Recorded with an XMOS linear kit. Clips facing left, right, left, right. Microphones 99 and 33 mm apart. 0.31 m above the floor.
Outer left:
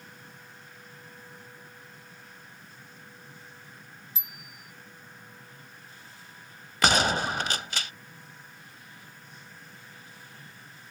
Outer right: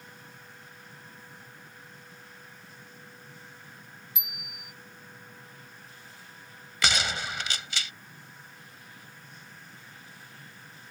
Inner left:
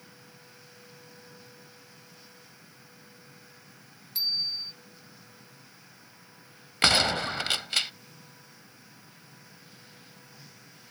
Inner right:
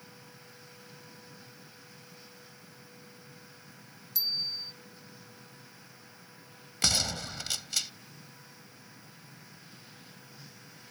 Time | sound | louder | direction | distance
4.2 | a bicycle bell | outer right 1 dB, inner left 3 dB | 30° left (ahead or behind) | ?
6.8 | a gunshot | outer left 6 dB, inner left 7 dB | 45° left (ahead or behind) | ?